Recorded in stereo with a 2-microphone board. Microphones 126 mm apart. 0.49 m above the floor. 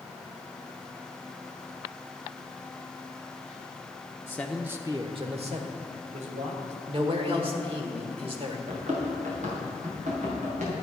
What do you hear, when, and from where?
4.3 s a man speaking: 20° left (ahead or behind), 0.7 m; by 6.8 s 70° right (ahead or behind), 2.5 m
6.9 s a man speaking: 45° right (ahead or behind), 1.3 m
8.7 s running footsteps: 65° right (ahead or behind), 3 m; by 10.8 s 70° right (ahead or behind), 5 m